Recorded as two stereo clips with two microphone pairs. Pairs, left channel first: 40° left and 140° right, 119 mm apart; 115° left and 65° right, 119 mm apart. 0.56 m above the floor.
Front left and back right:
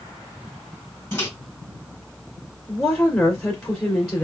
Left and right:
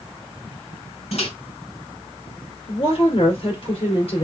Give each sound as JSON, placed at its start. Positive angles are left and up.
{"t": 1.1, "sound": "a microwave", "azimuth_deg": 105, "distance_m": 1.6}
{"t": 2.7, "sound": "a woman speaking", "azimuth_deg": 110, "distance_m": 1.7}